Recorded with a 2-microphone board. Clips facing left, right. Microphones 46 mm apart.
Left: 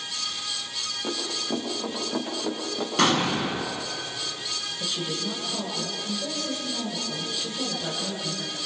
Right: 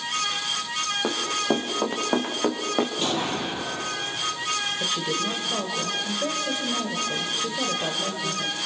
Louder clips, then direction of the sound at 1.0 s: Right 5 dB; 65° right (ahead or behind).